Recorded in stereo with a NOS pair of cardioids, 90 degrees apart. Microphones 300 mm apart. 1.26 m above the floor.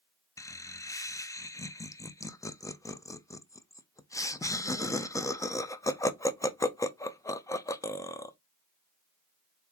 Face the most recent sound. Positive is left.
turn(degrees=10)